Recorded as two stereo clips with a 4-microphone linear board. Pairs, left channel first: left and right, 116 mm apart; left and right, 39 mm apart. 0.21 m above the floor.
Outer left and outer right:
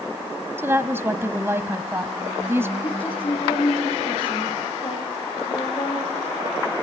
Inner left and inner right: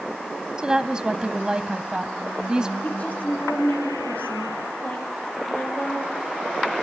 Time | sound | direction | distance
0.6 | a woman speaking | 20° right (ahead or behind) | 1.0 m
2.8 | a woman speaking | 50° left (ahead or behind) | 5 m